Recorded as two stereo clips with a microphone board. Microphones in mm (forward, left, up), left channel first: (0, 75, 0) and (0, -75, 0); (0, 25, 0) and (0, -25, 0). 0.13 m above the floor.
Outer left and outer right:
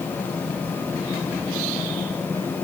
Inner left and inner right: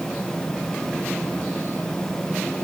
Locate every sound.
Only background noise.